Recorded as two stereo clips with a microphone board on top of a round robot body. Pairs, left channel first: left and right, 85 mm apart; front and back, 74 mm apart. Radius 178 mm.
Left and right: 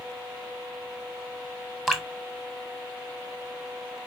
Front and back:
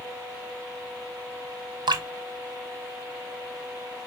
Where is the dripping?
175° left, 1.3 m.